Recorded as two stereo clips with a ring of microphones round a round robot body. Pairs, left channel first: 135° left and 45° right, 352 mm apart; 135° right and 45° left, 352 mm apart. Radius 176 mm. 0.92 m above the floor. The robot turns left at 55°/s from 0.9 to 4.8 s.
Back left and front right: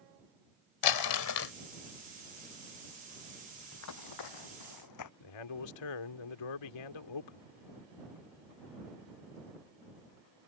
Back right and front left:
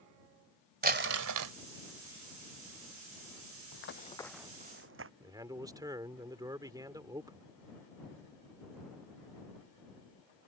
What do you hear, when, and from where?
0.8 s crumpling: 110° left; by 1.5 s 75° left
3.7 s running footsteps: 175° right; by 5.1 s 100° left
5.2 s a man speaking: 125° left